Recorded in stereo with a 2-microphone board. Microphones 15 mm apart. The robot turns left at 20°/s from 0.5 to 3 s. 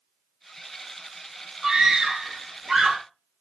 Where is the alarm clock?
No alarm clock in this recording.